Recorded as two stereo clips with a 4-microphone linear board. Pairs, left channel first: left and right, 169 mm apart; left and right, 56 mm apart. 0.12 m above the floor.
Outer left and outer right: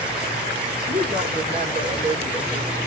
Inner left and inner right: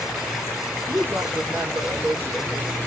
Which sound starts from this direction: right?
A woman speaking, at 0.9 s.